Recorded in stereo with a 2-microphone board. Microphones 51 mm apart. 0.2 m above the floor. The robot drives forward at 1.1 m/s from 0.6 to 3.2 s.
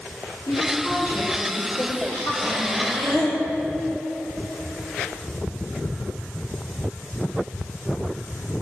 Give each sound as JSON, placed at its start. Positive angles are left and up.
{"t": 0.5, "sound": "a woman speaking", "side_deg": 75, "distance_m": 6.0}
{"t": 2.4, "sound": "breathing", "side_deg": 0, "distance_m": 5.0}